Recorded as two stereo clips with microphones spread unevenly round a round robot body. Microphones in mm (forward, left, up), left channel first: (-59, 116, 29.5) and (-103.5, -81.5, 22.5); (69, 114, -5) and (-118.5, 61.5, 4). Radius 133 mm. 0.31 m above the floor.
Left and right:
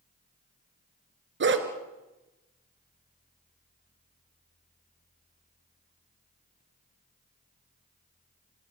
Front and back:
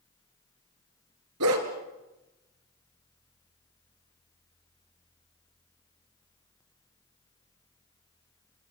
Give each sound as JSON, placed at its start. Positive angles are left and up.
{"t": 1.4, "sound": "a dog barking", "azimuth_deg": -130, "distance_m": 2.5}